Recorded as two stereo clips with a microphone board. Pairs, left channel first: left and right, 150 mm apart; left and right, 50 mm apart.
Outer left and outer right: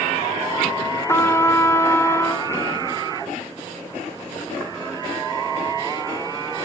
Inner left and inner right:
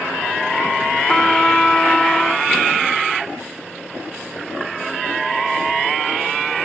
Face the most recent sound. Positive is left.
turn(degrees=20)  # may be behind; listen again after turning